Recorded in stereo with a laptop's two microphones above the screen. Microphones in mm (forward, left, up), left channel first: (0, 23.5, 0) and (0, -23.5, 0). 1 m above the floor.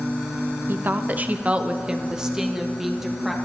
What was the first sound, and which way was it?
A woman speaking, 45° right (ahead or behind).